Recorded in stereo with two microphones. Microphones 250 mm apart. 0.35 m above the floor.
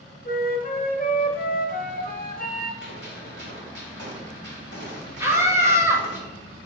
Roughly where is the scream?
Centre.